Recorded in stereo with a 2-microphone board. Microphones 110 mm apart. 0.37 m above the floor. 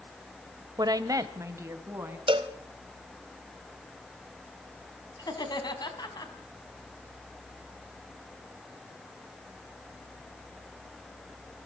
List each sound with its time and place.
0.8 s a woman speaking: 35° right (ahead or behind), 1.2 m; by 2.2 s 20° right (ahead or behind), 3 m
2.3 s a cowbell: 50° right (ahead or behind), 1.1 m
5.2 s laughter: 40° left (ahead or behind), 3.5 m